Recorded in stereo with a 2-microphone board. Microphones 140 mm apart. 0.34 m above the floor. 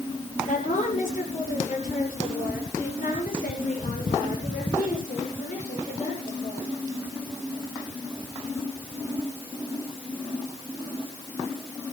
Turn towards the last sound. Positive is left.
turn(degrees=65)  # may be behind; listen again after turning